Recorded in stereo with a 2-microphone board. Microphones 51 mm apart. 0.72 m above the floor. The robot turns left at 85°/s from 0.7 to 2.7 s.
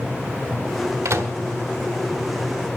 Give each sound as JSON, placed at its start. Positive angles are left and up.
{"t": 1.1, "sound": "a microwave", "side_deg": -80, "distance_m": 1.1}